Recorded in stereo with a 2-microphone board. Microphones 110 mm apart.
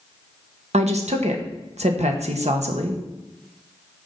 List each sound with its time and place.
0.7 s a woman speaking: 80° right, 1.3 m